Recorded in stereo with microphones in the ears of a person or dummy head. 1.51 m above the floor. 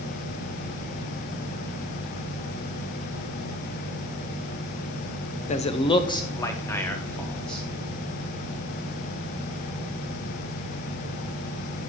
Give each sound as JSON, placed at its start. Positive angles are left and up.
{"t": 5.5, "sound": "a man speaking", "side_deg": 45, "distance_m": 0.7}